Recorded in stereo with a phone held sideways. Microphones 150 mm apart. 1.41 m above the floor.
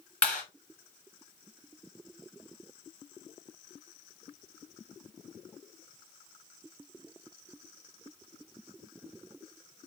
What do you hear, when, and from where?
0.2 s a clap: 5° left (ahead or behind), 7 m